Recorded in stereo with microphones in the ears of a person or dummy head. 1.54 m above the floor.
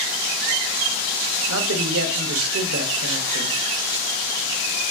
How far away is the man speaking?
About 0.7 m.